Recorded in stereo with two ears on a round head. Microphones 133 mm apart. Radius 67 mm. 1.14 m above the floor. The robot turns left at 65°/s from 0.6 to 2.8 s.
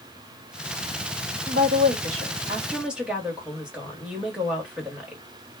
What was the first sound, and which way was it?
A woman speaking, 85° right.